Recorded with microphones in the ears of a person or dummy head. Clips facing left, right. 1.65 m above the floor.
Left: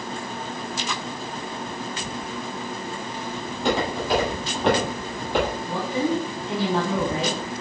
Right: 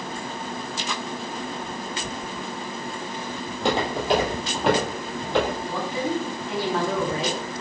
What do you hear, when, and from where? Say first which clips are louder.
3.5 s footsteps: even; 35° right (ahead or behind), 2 m; by 5.6 s 20° left (ahead or behind), 2 m
5.7 s a woman speaking: left 2 dB; 25° left (ahead or behind), 1.0 m